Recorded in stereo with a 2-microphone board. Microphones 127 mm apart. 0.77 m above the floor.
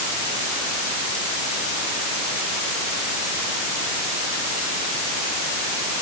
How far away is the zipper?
No zipper in this recording.